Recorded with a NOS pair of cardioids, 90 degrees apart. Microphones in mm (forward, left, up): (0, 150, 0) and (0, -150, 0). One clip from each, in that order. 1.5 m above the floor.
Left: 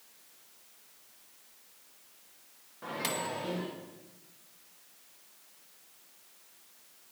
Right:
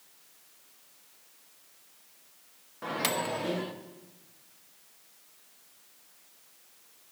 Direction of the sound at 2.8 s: 30° right.